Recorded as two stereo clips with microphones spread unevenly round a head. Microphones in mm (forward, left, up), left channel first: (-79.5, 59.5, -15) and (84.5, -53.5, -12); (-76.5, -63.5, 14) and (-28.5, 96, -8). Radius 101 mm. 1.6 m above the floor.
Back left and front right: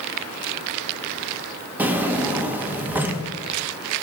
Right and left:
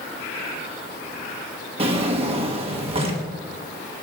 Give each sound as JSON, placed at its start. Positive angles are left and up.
{"t": 1.8, "sound": "a drawer", "azimuth_deg": 35, "distance_m": 0.8}